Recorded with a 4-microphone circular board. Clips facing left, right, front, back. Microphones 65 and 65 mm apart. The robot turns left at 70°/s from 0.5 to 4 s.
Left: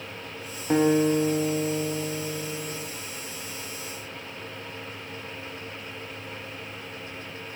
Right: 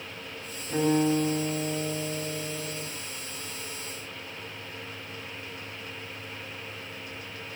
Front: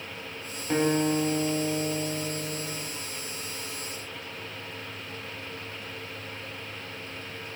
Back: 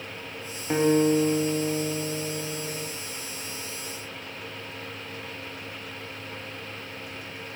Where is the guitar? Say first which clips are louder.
Left 3 dB, back 4 dB; 105° left, 6.5 m; by 2.8 s 45° right, 6.5 m.